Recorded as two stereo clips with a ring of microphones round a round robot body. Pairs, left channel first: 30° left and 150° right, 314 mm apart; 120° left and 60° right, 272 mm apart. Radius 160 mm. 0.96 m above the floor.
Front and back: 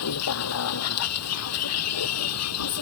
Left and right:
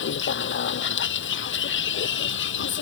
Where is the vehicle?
75° left.